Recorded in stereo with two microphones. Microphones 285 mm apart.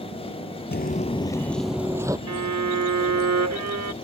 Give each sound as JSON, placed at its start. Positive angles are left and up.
{"t": 0.7, "sound": "footsteps", "side_deg": 35}
{"t": 2.3, "sound": "a violin", "side_deg": -65}